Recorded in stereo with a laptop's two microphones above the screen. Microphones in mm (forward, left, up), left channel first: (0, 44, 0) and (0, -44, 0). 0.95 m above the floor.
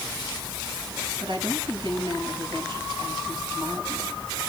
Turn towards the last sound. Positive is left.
turn(degrees=-80)